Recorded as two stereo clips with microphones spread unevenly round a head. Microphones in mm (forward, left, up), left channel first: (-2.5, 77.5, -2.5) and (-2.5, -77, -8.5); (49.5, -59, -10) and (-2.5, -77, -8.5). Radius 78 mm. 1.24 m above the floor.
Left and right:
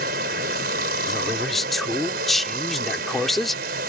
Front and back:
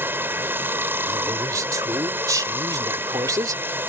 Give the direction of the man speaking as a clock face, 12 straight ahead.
6 o'clock.